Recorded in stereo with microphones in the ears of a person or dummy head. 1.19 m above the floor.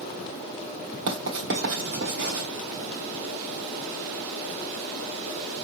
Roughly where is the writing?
Right.